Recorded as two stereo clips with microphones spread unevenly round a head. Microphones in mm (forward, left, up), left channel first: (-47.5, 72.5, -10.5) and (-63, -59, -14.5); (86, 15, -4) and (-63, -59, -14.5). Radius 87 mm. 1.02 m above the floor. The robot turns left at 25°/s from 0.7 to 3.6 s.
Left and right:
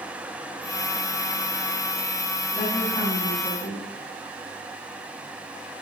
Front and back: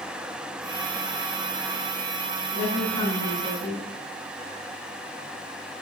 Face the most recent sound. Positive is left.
turn(degrees=140)